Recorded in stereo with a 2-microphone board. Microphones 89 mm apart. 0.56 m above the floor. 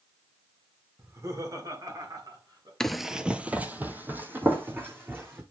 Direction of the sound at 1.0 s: 30° right (ahead or behind).